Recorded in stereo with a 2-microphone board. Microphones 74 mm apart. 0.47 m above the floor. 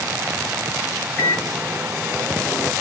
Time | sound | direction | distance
1.2 | a microwave | 15° left (ahead or behind) | 1.9 m